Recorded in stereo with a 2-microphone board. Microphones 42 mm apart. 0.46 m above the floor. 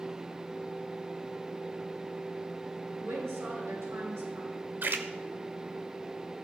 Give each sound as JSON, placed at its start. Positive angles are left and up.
{"t": 3.0, "sound": "a woman speaking", "side_deg": -80, "distance_m": 8.5}
{"t": 4.8, "sound": "a splash", "side_deg": -50, "distance_m": 1.1}